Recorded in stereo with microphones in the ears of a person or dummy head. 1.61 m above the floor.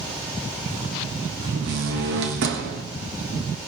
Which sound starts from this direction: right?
A door slam, at 1.4 s.